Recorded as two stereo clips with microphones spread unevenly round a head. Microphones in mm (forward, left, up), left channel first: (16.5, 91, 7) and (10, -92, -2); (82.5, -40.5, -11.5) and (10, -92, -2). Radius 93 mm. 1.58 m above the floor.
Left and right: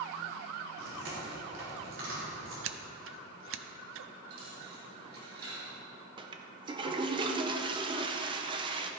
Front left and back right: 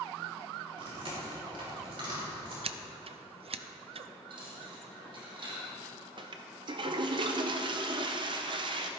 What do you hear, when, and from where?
0.8 s chewing: 125° right, 3.5 m
2.6 s scissors: 120° right, 0.6 m
4.3 s a dropped coin: 135° right, 4 m
6.2 s a toilet flushing: 160° right, 0.7 m